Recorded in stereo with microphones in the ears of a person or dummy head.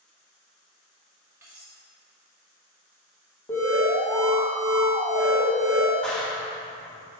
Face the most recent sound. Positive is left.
turn(degrees=5)  # may be behind; listen again after turning